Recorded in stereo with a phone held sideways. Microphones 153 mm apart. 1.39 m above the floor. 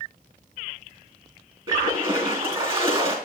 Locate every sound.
1.7 s a splash: 35° right (ahead or behind), 3 m